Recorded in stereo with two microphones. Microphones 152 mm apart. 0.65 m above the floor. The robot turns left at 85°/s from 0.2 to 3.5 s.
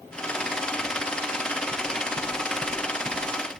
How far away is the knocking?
About 7 m.